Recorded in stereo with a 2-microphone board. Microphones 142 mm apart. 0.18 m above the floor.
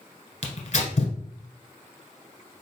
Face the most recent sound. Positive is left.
turn(degrees=60)  # may be behind; listen again after turning